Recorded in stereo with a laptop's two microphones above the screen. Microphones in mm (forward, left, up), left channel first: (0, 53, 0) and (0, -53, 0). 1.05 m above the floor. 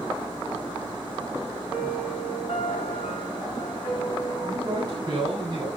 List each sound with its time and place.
1.7 s a piano: 70° left (ahead or behind), 6 m
4.4 s a man speaking: 40° right (ahead or behind), 8.5 m